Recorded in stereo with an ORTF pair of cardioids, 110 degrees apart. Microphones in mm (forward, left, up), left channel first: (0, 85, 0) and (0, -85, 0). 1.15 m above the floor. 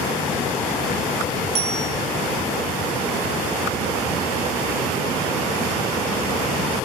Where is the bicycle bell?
40° right, 10 m.